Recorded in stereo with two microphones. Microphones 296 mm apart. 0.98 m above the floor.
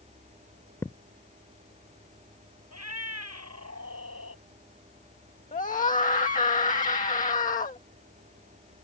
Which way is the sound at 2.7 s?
60° right (ahead or behind).